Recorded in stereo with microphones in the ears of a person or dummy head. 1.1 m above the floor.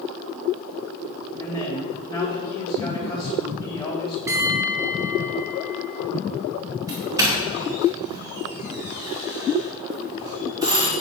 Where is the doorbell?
15° right (ahead or behind), 2.0 m.